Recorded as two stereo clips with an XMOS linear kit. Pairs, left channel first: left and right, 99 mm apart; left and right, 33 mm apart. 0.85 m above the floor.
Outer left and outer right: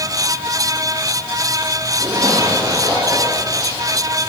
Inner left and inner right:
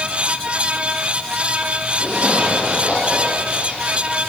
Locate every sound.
2.0 s a zipper: 35° right (ahead or behind), 8.5 m